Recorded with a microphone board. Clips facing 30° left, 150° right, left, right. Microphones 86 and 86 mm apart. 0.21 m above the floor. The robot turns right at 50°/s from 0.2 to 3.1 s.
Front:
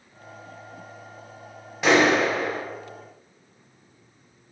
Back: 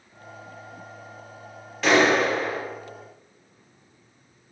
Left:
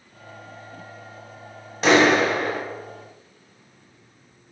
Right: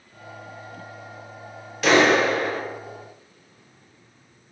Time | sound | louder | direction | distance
1.8 | a clap | even, left 1 dB | 85° left | 1.2 m